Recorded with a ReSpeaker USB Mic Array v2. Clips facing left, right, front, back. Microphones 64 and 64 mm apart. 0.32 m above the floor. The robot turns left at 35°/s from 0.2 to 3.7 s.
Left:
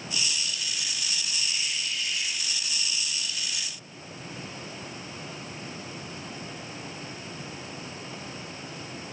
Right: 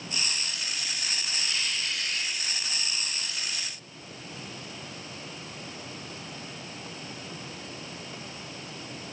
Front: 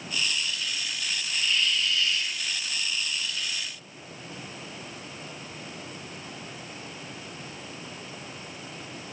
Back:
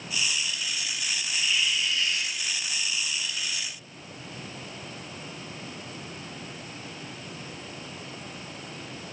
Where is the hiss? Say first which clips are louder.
Right 1 dB, front 1 dB; 90° right, 5 m; by 2.4 s 130° right, 5 m.